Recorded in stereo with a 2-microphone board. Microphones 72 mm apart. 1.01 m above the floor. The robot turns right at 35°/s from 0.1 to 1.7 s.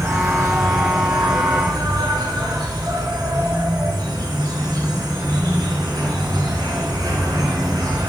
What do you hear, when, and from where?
0.0 s an insect: 140° right, 3.5 m; by 8.1 s 85° right, 3.5 m